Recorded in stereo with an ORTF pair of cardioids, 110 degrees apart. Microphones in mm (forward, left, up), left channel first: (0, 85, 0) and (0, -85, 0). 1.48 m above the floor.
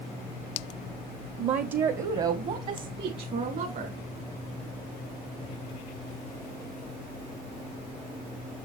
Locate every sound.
1.4 s a woman speaking: 45° right, 0.7 m; by 4.0 s 55° right, 2.5 m